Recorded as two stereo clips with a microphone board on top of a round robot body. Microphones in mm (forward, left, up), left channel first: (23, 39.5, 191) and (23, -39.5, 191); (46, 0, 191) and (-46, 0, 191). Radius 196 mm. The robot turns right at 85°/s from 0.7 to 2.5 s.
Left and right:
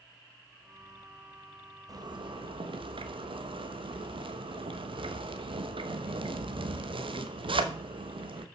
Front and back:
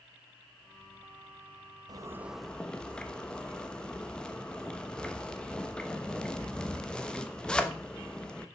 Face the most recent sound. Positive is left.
turn(degrees=-80)